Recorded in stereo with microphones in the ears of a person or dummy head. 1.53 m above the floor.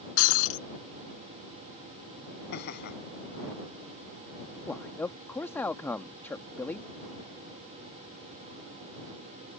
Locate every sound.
0.2 s breaking glass: 85° left
2.5 s laughter: 70° left (ahead or behind)
4.7 s a man speaking: 20° left (ahead or behind)